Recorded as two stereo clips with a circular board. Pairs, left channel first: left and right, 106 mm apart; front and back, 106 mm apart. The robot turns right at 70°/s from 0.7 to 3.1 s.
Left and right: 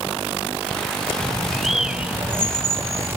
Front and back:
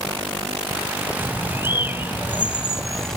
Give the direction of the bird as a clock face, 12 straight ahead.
7 o'clock.